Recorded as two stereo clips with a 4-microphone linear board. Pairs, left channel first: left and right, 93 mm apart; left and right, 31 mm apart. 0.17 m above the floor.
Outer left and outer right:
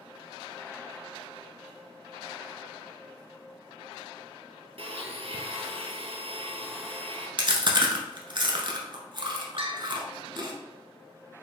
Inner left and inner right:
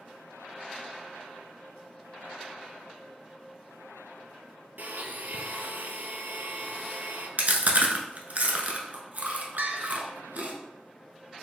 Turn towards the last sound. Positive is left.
turn(degrees=-65)  # may be behind; listen again after turning